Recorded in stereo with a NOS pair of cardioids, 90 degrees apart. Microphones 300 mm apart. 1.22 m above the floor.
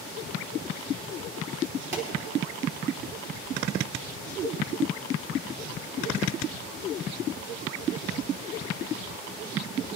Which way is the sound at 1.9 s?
40° right.